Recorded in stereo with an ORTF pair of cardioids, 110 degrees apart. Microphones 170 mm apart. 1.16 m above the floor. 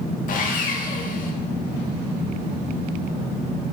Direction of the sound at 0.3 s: 55° left.